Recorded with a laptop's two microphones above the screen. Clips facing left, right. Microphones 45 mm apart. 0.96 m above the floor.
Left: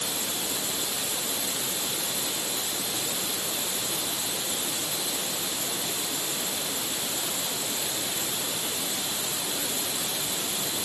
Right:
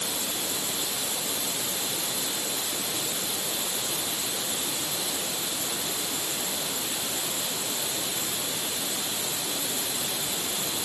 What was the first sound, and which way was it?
Only background noise.